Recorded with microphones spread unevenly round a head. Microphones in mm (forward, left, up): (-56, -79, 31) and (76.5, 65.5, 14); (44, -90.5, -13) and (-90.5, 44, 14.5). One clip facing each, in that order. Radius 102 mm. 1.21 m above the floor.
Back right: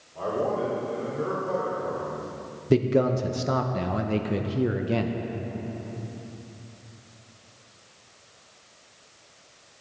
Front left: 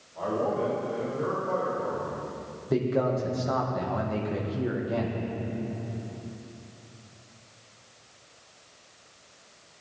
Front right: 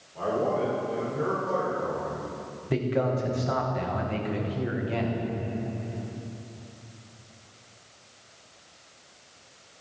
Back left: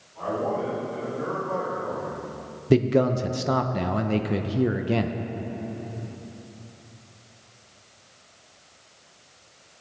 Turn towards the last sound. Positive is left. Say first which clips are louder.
# back right 4 dB, back left 7 dB
turn(degrees=170)